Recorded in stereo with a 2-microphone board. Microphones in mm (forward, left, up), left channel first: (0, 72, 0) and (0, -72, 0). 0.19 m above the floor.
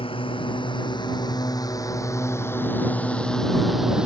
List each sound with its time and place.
0.0 s a drone: 40° left (ahead or behind); by 4.1 s 5° right (ahead or behind)